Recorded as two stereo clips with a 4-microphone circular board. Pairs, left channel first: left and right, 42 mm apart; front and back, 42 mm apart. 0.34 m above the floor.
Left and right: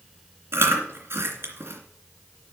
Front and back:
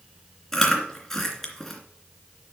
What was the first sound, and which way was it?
Chewing, 80° right.